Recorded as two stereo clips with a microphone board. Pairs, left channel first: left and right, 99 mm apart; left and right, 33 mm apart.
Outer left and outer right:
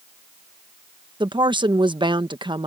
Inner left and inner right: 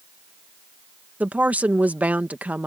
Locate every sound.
1.2 s a woman speaking: 60° right (ahead or behind)